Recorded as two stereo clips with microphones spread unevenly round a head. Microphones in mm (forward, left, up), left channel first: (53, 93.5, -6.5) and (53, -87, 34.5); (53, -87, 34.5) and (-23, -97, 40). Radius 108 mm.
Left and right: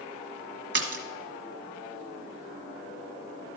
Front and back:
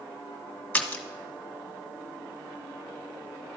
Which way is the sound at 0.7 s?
65° right.